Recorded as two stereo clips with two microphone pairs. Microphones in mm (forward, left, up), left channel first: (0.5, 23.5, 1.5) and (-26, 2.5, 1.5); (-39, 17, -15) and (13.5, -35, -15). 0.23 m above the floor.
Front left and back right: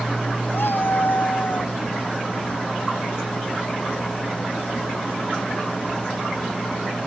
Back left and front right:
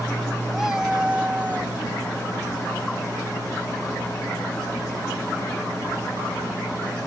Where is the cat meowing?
40° left; by 1.7 s 20° left.